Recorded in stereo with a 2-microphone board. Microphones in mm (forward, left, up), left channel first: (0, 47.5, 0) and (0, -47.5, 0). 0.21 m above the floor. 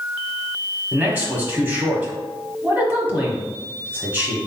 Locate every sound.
0.9 s a man speaking: 15° right (ahead or behind), 1.1 m